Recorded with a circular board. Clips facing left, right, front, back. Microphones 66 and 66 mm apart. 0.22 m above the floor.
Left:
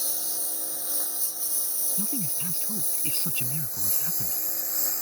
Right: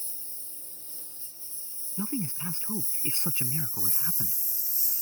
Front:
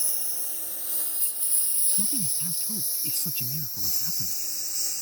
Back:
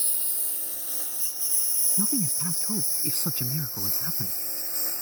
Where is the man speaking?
155° right.